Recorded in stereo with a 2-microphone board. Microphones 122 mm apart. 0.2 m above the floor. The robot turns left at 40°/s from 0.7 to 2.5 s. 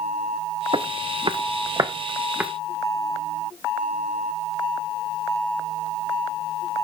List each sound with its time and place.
0.7 s footsteps: 45° right (ahead or behind), 0.7 m; by 2.5 s 10° right (ahead or behind), 1.6 m